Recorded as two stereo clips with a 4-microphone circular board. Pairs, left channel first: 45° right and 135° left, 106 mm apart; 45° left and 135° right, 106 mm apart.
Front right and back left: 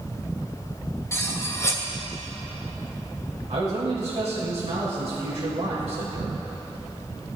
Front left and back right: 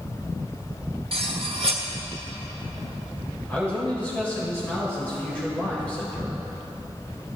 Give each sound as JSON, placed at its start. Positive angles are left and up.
{"t": 1.1, "sound": "cutlery clinking", "azimuth_deg": -110, "distance_m": 1.2}
{"t": 3.5, "sound": "a man speaking", "azimuth_deg": 120, "distance_m": 4.0}